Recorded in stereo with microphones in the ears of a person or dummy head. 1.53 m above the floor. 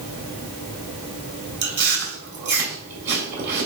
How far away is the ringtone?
No ringtone in this recording.